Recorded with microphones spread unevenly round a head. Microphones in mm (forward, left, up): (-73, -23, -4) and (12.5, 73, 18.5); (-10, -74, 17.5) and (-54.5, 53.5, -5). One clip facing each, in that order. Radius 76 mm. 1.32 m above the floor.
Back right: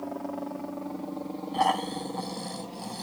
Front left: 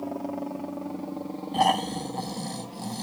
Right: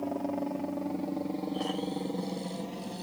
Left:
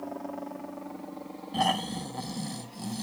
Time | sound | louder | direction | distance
0.0 | a helicopter | front left 2 dB, right 5 dB | 20° right | ?
1.5 | snoring | front left 3 dB, left 3 dB | 105° left | ?